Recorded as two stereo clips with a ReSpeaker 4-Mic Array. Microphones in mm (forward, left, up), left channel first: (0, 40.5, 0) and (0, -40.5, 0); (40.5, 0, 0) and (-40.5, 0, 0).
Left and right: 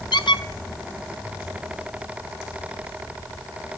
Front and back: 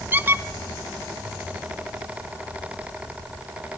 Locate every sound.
0.1 s a squeak: 115° left, 0.6 m